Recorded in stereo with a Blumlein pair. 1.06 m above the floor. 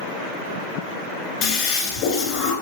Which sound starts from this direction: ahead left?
A toilet flushing, at 1.4 s.